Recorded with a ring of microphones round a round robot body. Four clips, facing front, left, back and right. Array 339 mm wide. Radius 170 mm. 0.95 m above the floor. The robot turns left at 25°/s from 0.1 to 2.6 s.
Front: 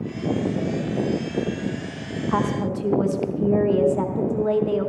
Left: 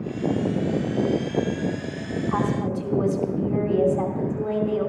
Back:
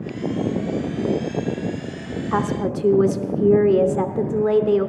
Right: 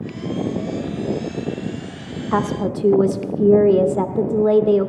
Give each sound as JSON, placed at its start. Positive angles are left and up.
{"t": 2.3, "sound": "a woman speaking", "azimuth_deg": -100, "distance_m": 0.8}